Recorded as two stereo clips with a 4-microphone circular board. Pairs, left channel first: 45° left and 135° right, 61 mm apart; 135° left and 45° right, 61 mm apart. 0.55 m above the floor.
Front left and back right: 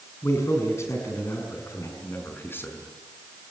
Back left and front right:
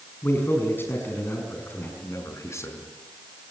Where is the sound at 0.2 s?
85° left, 6 m.